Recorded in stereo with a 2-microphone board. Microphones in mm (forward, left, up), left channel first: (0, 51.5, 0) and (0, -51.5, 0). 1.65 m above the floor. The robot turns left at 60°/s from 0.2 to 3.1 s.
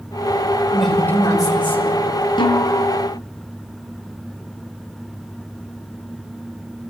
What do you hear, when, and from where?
0.7 s a woman speaking: 175° right, 5 m; by 2.0 s 105° left, 5 m
2.4 s a snare drum: 55° left (ahead or behind), 4 m; by 2.9 s 30° left (ahead or behind), 4 m